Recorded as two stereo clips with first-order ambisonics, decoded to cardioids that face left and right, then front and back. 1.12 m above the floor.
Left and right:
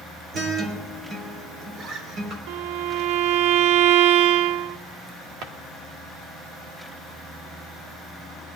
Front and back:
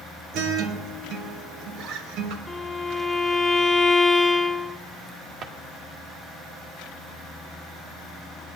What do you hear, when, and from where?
0.3 s a guitar: 140° right, 3 m
2.5 s a violin: 85° right, 0.6 m
5.4 s a drawer: 125° right, 1.4 m